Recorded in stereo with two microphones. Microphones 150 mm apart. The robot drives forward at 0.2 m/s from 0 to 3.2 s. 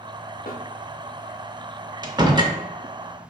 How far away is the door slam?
About 0.5 m.